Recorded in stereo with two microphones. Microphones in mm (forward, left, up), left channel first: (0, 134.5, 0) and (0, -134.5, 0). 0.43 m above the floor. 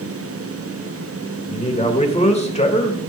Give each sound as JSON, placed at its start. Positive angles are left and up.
{"t": 1.5, "sound": "a man speaking", "side_deg": 25, "distance_m": 1.8}